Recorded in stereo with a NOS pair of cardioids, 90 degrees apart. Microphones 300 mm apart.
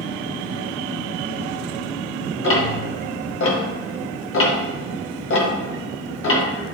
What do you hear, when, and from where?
2.4 s ticking: 45° left, 1.3 m